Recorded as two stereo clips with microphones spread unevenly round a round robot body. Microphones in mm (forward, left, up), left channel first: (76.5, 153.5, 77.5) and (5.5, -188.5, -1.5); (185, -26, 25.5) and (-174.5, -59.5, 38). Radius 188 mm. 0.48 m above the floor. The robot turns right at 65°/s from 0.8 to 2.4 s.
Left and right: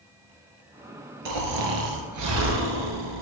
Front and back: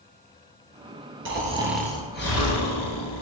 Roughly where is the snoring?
Behind right.